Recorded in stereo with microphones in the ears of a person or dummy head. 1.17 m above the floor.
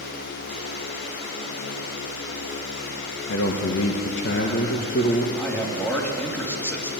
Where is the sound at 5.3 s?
15° left (ahead or behind), 2 m.